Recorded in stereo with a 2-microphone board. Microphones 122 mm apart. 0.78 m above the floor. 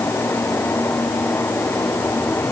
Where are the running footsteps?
I don't hear running footsteps.